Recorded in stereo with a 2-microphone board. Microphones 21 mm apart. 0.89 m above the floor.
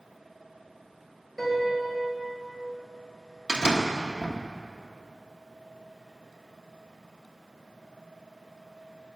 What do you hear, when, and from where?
1.4 s a piano: centre (ahead or behind), 3.5 m
3.5 s a door slam: 50° right (ahead or behind), 0.9 m